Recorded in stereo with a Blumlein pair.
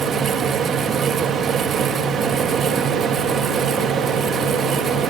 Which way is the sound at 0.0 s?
25° right.